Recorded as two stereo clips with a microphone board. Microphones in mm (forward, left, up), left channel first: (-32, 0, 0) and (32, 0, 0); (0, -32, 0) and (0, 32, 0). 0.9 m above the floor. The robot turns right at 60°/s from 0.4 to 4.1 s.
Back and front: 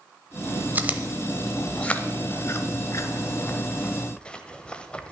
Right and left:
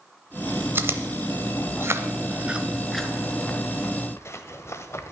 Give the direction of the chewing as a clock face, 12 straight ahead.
10 o'clock.